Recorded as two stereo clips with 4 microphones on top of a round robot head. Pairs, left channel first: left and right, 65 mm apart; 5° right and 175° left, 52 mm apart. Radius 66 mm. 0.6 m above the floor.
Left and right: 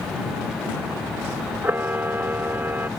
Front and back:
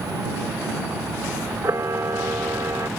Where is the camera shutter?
150° right.